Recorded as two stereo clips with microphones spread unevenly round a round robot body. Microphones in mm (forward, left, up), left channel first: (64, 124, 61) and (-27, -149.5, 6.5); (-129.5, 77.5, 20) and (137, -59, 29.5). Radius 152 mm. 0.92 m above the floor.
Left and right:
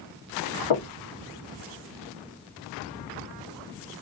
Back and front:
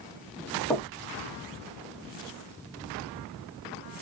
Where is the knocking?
75° left, 1.2 m.